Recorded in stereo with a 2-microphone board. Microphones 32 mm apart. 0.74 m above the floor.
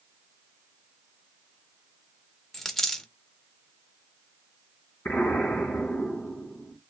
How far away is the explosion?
About 2.5 m.